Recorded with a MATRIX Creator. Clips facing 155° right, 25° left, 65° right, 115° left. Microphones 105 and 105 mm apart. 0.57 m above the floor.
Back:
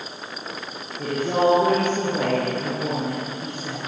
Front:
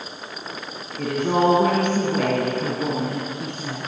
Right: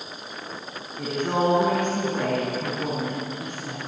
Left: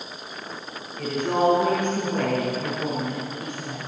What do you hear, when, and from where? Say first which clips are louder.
1.0 s a woman speaking: front 1 dB, left 2 dB; 10° left, 4.5 m